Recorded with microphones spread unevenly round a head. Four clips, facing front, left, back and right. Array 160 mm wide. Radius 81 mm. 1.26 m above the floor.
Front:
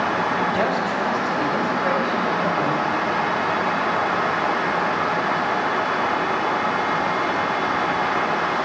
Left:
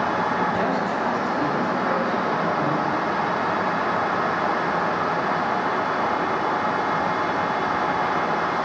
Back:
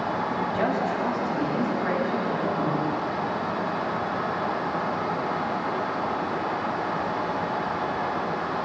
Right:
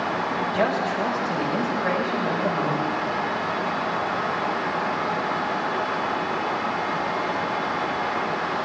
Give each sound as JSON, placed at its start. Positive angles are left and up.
{"t": 0.5, "sound": "a man speaking", "azimuth_deg": -50, "distance_m": 4.5}